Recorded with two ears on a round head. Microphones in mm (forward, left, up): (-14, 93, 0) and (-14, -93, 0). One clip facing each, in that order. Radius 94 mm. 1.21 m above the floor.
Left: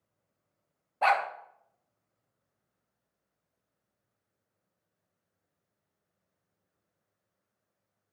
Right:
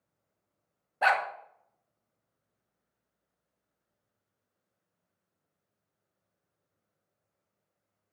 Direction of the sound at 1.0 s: 10° right (ahead or behind).